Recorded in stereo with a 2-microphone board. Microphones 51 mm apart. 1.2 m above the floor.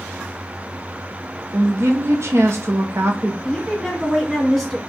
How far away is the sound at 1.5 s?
About 0.9 m.